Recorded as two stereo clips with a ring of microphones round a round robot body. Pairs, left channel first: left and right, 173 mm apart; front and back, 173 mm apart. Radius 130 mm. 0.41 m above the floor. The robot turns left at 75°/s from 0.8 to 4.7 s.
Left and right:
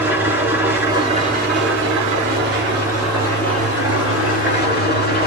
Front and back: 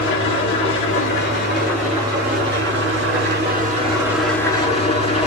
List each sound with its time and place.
0.0 s an engine running: 10° right, 4.5 m; by 5.3 s 55° left, 4.5 m